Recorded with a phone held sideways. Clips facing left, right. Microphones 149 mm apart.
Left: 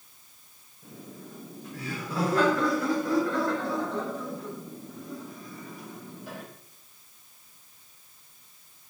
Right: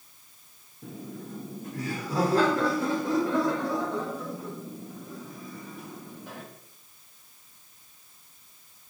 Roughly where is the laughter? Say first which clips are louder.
Right 5 dB; right.